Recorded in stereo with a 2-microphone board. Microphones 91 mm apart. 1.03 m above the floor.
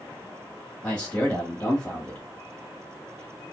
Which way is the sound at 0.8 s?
15° left (ahead or behind).